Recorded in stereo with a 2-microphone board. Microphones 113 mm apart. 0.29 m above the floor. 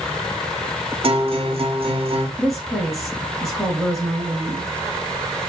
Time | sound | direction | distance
1.0 | a guitar | 55° right (ahead or behind) | 1.7 m
2.4 | a woman speaking | centre (ahead or behind) | 3.5 m